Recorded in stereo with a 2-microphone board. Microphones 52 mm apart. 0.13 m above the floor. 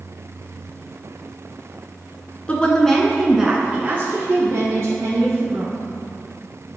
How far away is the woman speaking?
About 1.2 m.